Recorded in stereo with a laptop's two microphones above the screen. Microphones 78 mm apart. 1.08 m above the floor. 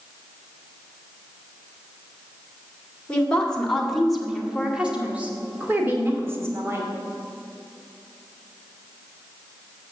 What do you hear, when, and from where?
3.1 s a woman speaking: 15° left (ahead or behind), 2 m; by 6.9 s 35° right (ahead or behind), 2.5 m